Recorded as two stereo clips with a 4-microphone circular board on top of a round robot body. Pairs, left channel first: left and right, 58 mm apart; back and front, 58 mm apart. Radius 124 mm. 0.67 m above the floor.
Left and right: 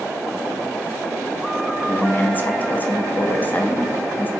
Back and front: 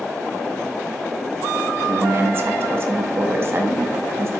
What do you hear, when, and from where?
1.9 s a woman speaking: 35° left, 0.7 m